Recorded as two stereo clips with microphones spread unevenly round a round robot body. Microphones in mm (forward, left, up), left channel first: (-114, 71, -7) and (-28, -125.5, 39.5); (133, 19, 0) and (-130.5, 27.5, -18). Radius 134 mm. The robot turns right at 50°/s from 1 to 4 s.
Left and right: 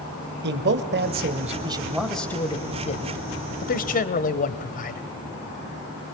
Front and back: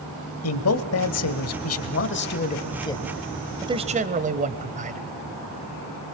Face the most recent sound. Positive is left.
turn(degrees=130)